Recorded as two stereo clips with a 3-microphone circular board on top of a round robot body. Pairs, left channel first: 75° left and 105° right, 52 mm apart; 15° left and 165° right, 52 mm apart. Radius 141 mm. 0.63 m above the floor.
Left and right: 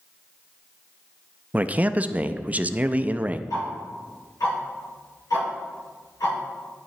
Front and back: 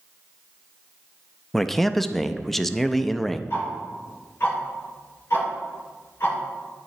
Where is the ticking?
60° left, 3 m.